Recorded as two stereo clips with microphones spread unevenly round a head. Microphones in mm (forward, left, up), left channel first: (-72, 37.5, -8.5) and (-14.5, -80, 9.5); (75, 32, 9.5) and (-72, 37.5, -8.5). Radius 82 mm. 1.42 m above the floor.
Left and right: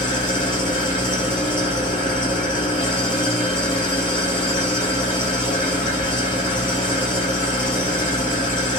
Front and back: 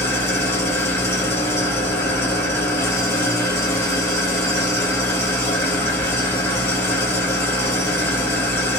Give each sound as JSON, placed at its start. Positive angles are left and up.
{"t": 0.0, "sound": "an engine running", "azimuth_deg": 60, "distance_m": 1.2}